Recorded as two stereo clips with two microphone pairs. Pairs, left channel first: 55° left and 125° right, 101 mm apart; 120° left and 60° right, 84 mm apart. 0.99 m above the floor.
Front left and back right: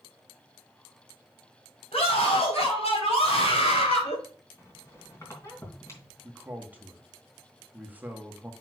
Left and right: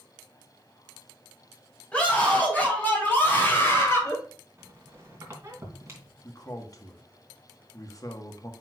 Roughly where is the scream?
Ahead left.